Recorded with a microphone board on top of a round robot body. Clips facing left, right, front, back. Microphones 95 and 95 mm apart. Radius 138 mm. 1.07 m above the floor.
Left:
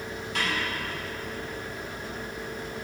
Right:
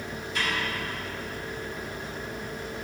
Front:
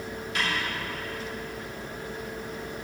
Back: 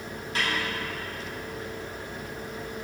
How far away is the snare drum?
About 1.6 m.